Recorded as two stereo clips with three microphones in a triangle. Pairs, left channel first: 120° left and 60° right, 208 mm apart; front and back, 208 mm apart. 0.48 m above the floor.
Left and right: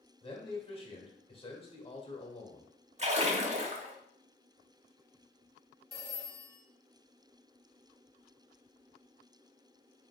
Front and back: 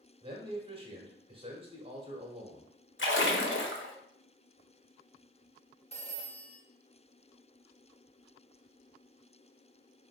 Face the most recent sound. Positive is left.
turn(degrees=60)